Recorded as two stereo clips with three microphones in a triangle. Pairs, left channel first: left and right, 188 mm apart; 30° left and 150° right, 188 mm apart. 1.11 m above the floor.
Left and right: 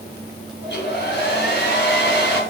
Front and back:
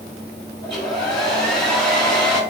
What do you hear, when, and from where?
0.6 s a hair dryer: 115° left, 3 m